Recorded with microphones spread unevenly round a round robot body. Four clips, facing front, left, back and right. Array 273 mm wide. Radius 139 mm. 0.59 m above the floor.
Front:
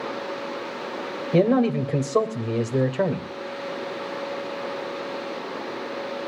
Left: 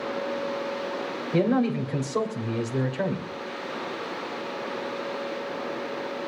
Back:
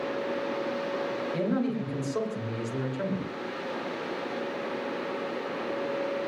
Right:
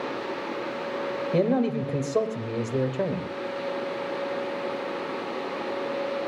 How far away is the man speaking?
About 3 m.